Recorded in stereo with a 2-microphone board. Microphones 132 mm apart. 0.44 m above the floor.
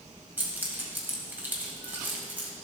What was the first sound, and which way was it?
Keys jangling, 15° right (ahead or behind).